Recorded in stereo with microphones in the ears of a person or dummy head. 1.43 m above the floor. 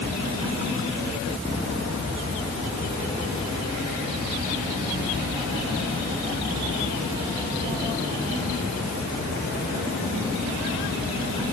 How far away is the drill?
I don't hear a drill.